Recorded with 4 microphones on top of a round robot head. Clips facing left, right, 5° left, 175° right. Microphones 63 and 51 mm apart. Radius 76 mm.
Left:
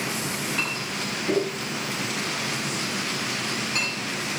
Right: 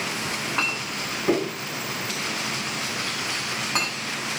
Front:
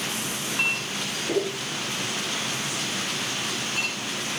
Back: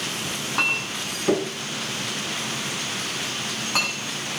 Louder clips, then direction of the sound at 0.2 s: Right 2 dB, back 3 dB; 150° right.